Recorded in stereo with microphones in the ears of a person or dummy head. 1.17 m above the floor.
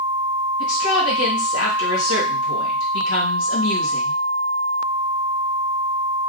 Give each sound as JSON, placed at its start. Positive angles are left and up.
{"t": 0.6, "sound": "a woman speaking", "side_deg": 80, "distance_m": 1.6}